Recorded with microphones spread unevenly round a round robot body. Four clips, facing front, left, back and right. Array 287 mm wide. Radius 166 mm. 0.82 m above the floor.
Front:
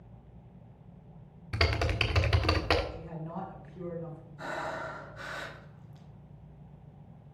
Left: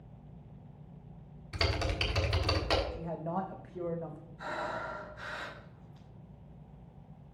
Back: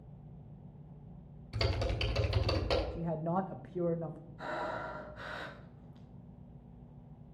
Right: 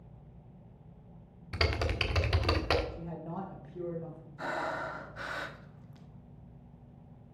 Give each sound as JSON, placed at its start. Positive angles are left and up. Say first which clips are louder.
{"t": 1.5, "sound": "typing on a keyboard", "louder": "right 1 dB, front 5 dB", "azimuth_deg": -10, "distance_m": 1.6}
{"t": 2.9, "sound": "a man speaking", "louder": "left 4 dB, back 6 dB", "azimuth_deg": 165, "distance_m": 0.6}
{"t": 4.4, "sound": "breathing", "louder": "right 2 dB, front 2 dB", "azimuth_deg": -65, "distance_m": 1.1}